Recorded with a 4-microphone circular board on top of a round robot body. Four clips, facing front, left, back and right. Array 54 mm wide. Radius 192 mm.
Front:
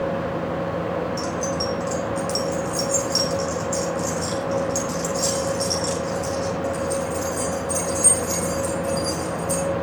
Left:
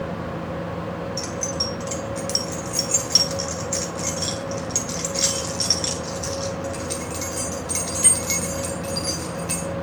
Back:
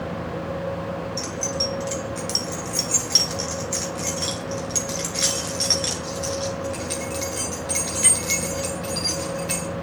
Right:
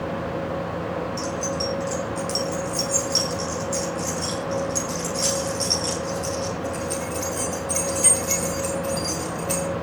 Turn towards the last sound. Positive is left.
turn(degrees=170)